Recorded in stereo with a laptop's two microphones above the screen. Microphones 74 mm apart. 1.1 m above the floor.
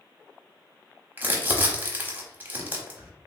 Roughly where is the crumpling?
Right.